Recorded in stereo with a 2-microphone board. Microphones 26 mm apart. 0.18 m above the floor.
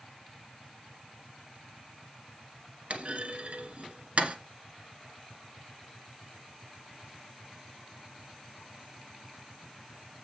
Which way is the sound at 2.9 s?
55° right (ahead or behind).